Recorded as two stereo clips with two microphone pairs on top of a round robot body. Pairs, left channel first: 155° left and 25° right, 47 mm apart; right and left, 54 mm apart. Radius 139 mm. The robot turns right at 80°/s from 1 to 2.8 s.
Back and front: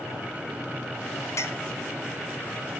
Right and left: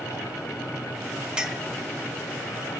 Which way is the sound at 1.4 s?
175° left.